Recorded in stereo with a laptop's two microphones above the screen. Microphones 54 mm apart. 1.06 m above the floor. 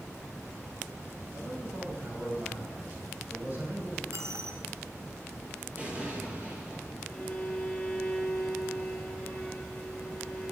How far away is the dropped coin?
About 2.5 m.